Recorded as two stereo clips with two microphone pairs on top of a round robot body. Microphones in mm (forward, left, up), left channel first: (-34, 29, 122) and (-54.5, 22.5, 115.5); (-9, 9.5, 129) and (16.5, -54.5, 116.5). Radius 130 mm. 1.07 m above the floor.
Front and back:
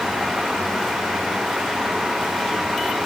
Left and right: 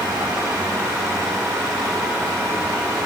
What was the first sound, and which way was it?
Only background noise.